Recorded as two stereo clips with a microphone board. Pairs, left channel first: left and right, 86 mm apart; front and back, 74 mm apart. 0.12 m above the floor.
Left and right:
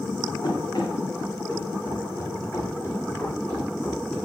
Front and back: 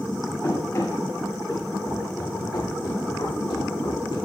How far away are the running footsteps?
About 7.5 m.